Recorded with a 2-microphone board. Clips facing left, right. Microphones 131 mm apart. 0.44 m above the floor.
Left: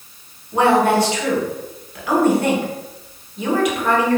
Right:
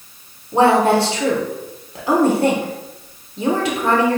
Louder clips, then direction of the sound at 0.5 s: Right 1 dB; 30° right (ahead or behind).